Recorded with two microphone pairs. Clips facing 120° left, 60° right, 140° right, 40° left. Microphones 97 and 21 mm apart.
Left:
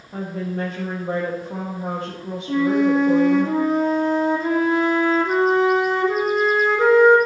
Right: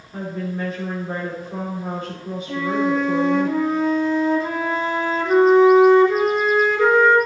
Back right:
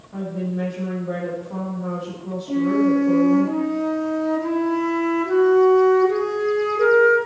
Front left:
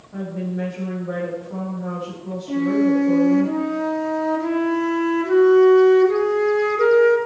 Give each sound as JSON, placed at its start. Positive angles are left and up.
{"t": 0.1, "sound": "a woman speaking", "azimuth_deg": 135, "distance_m": 4.5}
{"t": 2.5, "sound": "a flute", "azimuth_deg": 80, "distance_m": 2.5}